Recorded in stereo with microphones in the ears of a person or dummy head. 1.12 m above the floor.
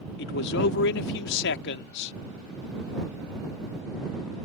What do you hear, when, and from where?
0.2 s a man speaking: 70° left (ahead or behind)